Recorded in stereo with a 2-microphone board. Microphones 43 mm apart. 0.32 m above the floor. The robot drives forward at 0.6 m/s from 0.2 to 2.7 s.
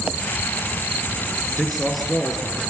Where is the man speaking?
Centre (ahead or behind), 5.5 m.